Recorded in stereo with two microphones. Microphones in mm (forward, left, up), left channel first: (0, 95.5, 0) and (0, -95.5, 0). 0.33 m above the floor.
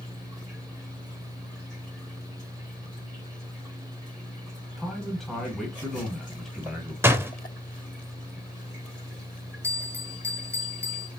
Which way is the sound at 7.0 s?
10° right (ahead or behind).